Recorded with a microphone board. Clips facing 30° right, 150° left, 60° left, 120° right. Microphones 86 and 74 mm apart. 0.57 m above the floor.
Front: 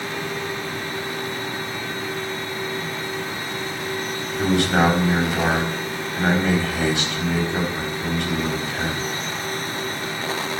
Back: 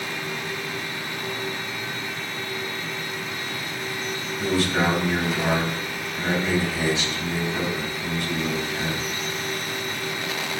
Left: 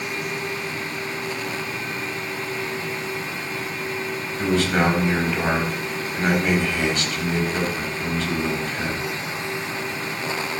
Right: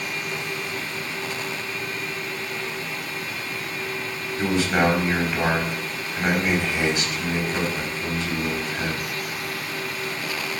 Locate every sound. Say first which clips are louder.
4.4 s a man speaking: front 4 dB, left 1 dB; 45° right, 4.5 m